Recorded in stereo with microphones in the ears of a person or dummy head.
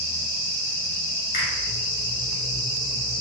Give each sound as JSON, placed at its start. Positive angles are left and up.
{"t": 1.3, "sound": "a finger snap", "side_deg": 45, "distance_m": 1.2}